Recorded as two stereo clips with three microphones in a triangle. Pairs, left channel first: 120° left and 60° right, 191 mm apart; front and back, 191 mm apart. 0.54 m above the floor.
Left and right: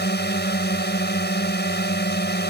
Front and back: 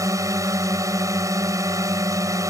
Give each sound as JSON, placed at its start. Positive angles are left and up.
{"t": 0.0, "sound": "a drone", "azimuth_deg": 110}